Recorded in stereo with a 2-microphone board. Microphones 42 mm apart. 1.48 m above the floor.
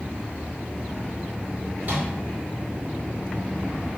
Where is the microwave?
45° right (ahead or behind), 1.7 m.